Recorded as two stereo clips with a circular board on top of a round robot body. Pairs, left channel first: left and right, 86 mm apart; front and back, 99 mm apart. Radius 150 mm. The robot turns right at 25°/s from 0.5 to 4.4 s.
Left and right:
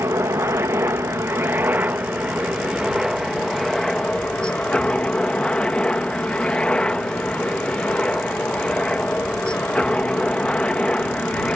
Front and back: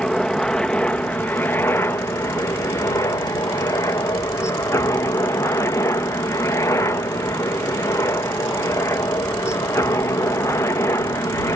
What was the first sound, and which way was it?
A helicopter, 75° right.